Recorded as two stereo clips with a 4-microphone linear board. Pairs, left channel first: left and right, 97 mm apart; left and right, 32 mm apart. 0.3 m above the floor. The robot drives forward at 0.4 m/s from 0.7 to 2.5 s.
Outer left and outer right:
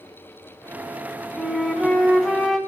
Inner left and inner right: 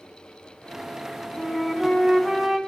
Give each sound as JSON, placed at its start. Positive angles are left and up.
{"t": 1.4, "sound": "a flute", "side_deg": 5, "distance_m": 1.6}